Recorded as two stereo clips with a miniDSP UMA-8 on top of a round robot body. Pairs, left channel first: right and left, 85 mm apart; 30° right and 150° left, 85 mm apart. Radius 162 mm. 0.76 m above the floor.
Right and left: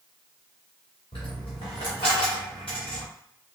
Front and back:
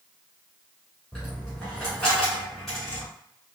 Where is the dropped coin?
115° right, 0.6 m.